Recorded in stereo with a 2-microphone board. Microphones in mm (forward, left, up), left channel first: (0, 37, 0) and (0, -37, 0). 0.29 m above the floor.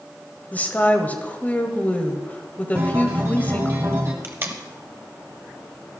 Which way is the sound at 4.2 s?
30° right (ahead or behind).